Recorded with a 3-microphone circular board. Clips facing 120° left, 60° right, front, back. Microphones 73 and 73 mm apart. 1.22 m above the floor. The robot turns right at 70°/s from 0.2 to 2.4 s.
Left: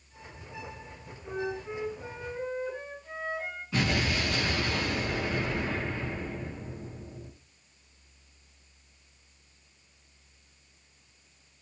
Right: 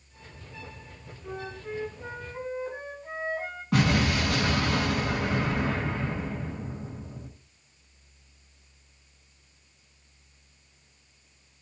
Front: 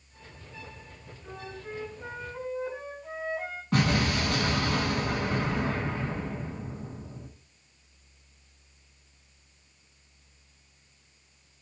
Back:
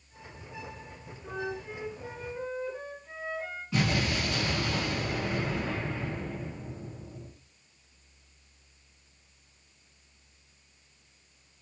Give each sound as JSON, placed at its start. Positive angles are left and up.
{"t": 1.2, "sound": "a flute", "azimuth_deg": -90, "distance_m": 6.0}
{"t": 3.7, "sound": "an explosion", "azimuth_deg": -30, "distance_m": 6.5}